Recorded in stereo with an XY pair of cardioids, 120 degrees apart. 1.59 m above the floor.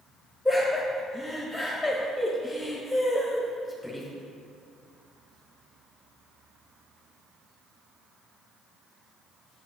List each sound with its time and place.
0.5 s laughter: 5° right, 1.1 m